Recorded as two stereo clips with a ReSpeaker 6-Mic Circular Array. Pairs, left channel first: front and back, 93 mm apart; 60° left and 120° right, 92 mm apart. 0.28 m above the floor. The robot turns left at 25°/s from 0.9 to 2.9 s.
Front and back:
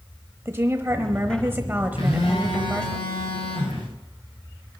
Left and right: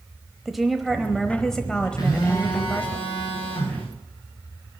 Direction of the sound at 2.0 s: 10° left.